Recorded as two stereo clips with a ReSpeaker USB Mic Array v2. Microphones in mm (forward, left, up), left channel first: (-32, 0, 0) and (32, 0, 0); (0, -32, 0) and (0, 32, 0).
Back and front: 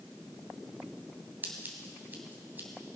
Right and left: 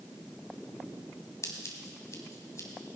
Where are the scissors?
55° right, 2 m.